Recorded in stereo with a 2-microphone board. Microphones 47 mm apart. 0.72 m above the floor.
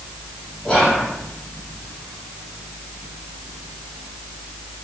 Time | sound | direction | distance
0.6 | whispering | 10° left (ahead or behind) | 0.9 m